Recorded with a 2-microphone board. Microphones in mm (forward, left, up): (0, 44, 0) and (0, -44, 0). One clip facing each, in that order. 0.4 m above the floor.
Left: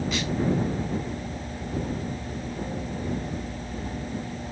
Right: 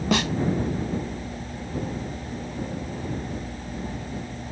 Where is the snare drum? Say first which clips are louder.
Right 6 dB; 70° right (ahead or behind).